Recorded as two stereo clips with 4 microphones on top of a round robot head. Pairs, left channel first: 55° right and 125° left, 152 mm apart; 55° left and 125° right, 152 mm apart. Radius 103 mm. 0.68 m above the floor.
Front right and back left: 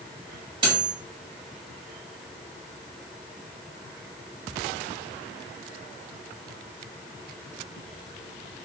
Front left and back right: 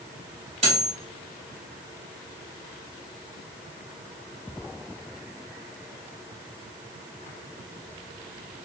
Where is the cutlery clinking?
175° right, 1.5 m.